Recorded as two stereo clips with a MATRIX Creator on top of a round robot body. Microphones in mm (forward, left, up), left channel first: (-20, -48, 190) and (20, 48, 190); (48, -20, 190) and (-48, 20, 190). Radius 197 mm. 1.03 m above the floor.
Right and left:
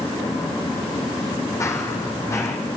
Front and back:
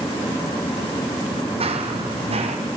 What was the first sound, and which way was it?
Running footsteps, 175° right.